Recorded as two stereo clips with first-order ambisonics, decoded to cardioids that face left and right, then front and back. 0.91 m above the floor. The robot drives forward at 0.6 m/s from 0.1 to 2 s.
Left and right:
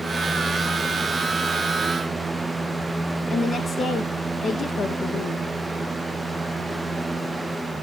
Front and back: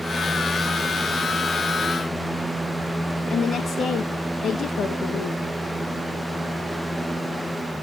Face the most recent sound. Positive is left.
turn(degrees=40)